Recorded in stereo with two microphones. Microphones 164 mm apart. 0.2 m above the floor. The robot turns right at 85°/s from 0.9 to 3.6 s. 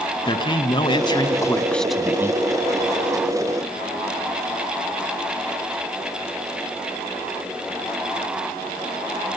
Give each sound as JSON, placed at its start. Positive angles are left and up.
{"t": 0.2, "sound": "a man speaking", "azimuth_deg": 95, "distance_m": 1.4}